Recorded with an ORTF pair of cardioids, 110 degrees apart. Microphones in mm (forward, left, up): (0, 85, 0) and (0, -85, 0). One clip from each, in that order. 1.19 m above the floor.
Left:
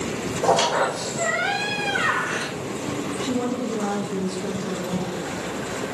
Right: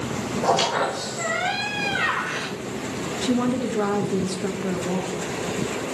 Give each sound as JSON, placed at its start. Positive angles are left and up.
{"t": 0.4, "sound": "a squeak", "azimuth_deg": 15, "distance_m": 4.5}
{"t": 3.2, "sound": "a woman speaking", "azimuth_deg": -35, "distance_m": 1.4}